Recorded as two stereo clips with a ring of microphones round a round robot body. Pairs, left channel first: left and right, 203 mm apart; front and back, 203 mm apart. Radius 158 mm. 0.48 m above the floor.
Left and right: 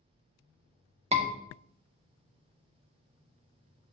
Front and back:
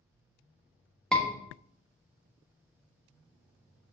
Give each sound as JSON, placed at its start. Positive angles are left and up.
{"t": 1.1, "sound": "a scream", "azimuth_deg": -85, "distance_m": 1.4}